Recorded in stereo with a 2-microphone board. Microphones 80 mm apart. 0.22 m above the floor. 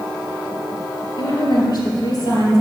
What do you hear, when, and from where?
1.2 s a woman speaking: 65° left (ahead or behind), 3.5 m; by 2.6 s 55° left (ahead or behind), 4 m